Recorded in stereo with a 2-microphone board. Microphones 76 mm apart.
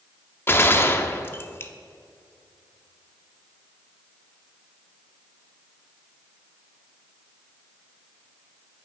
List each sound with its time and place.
0.5 s a gunshot: 30° left (ahead or behind), 0.6 m